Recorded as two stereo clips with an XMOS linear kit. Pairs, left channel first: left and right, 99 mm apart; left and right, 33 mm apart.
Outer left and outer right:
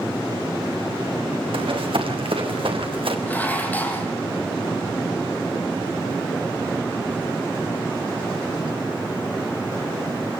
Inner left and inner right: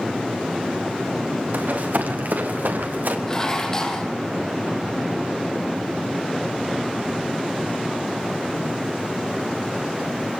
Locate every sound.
1.5 s running footsteps: 65° right (ahead or behind), 5.5 m
3.3 s dishes clattering: 15° left (ahead or behind), 4 m